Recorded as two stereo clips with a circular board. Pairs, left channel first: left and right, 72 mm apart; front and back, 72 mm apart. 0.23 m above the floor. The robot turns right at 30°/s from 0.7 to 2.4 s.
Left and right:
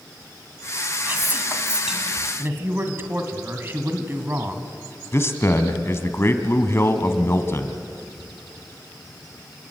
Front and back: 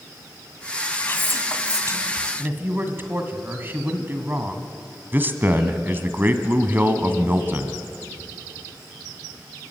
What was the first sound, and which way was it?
Whispering, 45° right.